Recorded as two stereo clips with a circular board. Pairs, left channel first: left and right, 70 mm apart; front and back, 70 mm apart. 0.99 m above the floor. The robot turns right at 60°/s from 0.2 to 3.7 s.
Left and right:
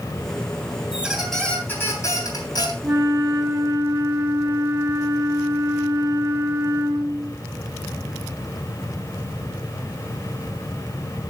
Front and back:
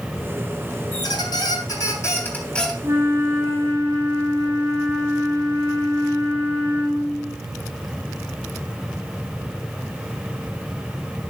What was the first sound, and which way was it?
A squeak, 20° right.